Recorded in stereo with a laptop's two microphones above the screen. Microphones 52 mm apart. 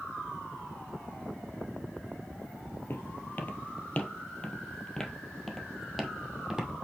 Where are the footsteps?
45° left (ahead or behind), 1.5 m; by 6.7 s 10° right (ahead or behind), 2 m.